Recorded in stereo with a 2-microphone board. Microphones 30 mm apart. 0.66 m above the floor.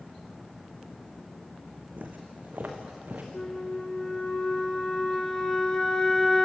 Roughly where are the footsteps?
Right.